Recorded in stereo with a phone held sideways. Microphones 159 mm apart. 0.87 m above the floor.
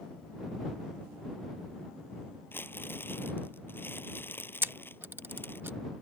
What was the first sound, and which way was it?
Crumpling, 10° left (ahead or behind).